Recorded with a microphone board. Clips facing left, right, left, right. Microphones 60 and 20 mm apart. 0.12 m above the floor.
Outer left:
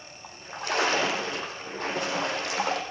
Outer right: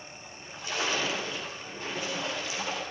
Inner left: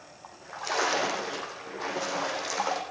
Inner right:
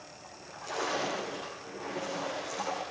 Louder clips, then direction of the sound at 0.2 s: Outer left 7 dB, inner left 8 dB; 65° left (ahead or behind).